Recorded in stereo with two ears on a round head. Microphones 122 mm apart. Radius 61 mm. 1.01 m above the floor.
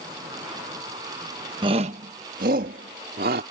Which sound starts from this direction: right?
A shout, at 1.6 s.